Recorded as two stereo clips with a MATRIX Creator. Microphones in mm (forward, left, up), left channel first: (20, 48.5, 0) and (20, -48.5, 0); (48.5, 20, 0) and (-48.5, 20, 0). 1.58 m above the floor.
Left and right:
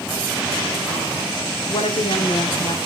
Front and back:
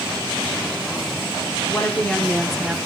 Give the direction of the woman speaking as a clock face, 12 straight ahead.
10 o'clock.